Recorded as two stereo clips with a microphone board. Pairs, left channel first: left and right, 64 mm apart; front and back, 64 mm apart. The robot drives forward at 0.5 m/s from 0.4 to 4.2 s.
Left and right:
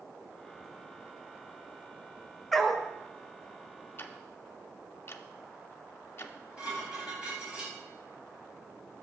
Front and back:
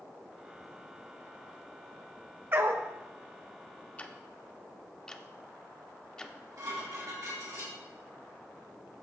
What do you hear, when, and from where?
2.5 s a dog barking: 175° left, 0.7 m; by 2.9 s straight behind, 0.8 m
4.0 s ticking: 55° left, 0.6 m; by 6.4 s 70° left, 0.5 m
6.2 s dishes clattering: 160° right, 4 m